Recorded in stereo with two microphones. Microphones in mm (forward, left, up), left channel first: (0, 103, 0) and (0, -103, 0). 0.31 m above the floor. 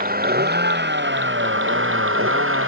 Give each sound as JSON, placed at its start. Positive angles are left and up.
{"t": 0.0, "sound": "a vehicle", "side_deg": -45}